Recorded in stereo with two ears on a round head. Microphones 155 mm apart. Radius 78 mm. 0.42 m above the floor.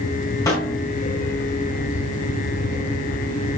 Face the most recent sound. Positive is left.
turn(degrees=20)  # may be behind; listen again after turning